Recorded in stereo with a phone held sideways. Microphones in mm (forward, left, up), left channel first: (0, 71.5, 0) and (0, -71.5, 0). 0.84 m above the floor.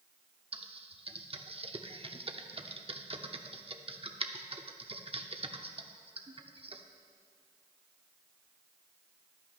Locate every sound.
0.5 s typing on a keyboard: 40° right (ahead or behind), 0.7 m